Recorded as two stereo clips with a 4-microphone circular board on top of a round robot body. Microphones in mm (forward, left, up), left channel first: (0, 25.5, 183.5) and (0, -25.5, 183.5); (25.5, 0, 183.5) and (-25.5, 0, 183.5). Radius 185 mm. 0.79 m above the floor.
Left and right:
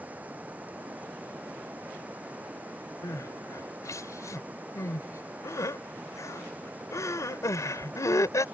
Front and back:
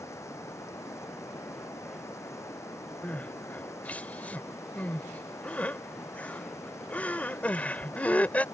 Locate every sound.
0.0 s running water: 30° right
3.0 s crying: 65° left